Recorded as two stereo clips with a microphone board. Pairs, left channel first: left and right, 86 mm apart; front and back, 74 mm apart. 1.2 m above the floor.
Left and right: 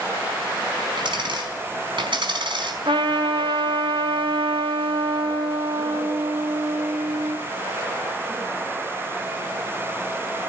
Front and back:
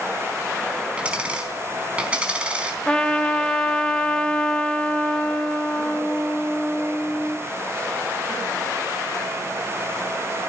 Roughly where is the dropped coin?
Right.